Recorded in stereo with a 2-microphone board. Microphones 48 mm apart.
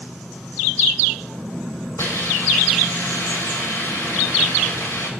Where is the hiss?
65° left (ahead or behind), 2.5 m.